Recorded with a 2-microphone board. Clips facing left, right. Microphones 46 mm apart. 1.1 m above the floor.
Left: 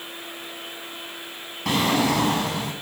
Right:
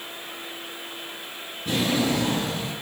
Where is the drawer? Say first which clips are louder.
Left 3 dB; 80° left, 5.5 m.